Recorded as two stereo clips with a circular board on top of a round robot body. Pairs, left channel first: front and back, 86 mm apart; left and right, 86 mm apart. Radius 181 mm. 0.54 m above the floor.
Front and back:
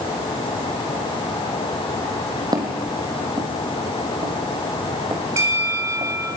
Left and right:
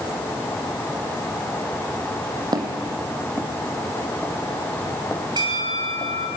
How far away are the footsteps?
About 1.9 m.